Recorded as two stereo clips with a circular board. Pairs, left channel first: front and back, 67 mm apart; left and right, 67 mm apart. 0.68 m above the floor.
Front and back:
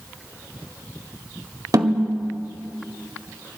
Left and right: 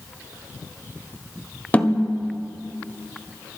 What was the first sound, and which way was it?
A snare drum, 155° left.